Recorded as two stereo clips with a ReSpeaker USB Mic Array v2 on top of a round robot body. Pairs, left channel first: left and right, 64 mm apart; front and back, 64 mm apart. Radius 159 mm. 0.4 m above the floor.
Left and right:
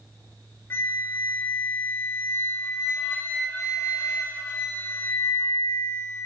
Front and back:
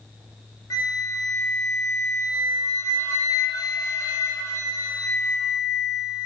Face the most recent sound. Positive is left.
turn(degrees=35)